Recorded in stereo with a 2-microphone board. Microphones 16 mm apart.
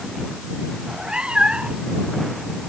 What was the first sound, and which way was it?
A cat meowing, 80° right.